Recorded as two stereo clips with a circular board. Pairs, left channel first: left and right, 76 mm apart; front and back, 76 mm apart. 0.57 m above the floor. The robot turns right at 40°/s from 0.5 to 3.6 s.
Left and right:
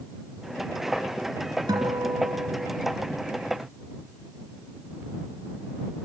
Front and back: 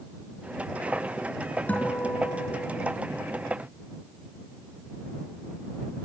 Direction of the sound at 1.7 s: 70° right.